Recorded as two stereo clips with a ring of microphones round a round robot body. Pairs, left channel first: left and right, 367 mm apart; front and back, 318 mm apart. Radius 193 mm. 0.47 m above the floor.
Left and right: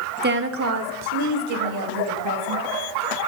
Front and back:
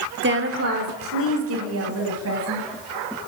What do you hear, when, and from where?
0.2 s a woman speaking: 145° right, 0.8 m; by 2.7 s 130° right, 3 m